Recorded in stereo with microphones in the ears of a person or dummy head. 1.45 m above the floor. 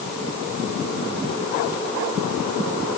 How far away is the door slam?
I don't hear a door slam.